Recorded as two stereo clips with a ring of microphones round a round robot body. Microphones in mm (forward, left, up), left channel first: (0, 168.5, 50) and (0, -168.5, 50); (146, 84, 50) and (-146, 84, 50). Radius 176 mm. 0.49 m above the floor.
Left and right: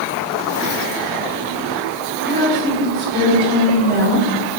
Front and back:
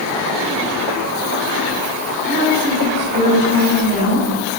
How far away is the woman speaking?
About 3 m.